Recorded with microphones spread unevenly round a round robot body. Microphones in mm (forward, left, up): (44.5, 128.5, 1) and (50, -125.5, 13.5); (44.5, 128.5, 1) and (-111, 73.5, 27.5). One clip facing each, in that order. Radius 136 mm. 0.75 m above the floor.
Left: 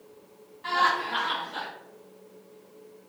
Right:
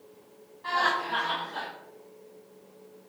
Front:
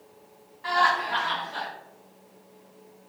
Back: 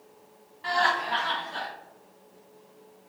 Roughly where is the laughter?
Behind left.